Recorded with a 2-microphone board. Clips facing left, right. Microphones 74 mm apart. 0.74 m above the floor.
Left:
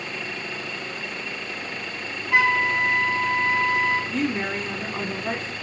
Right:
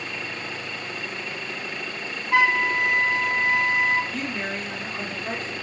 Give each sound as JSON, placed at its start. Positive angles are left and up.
{"t": 2.3, "sound": "a flute", "side_deg": -35, "distance_m": 1.5}
{"t": 4.1, "sound": "a woman speaking", "side_deg": 40, "distance_m": 0.9}